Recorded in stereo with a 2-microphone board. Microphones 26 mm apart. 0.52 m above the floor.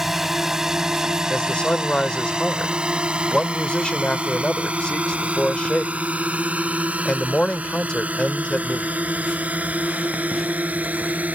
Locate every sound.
0.0 s a drone: 10° right (ahead or behind); by 11.4 s 75° right (ahead or behind)
1.3 s a man speaking: 40° left (ahead or behind)